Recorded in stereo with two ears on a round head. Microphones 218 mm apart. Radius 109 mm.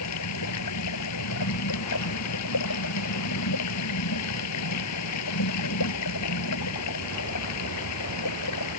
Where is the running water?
75° left (ahead or behind).